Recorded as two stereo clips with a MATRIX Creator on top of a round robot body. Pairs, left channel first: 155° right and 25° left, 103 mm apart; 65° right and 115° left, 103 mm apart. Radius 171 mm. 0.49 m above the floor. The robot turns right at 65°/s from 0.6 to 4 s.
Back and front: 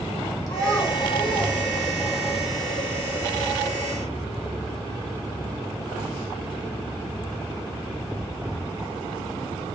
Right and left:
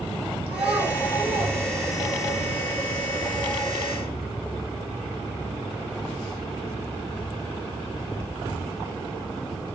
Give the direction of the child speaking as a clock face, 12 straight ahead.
8 o'clock.